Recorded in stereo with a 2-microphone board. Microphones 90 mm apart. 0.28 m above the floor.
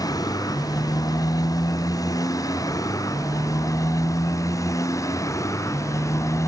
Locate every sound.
0.0 s a motorcycle: 45° left (ahead or behind); by 6.5 s 35° left (ahead or behind)